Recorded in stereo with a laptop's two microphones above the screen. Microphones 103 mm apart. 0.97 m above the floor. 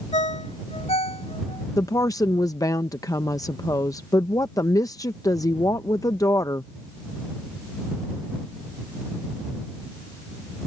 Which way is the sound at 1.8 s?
30° left (ahead or behind).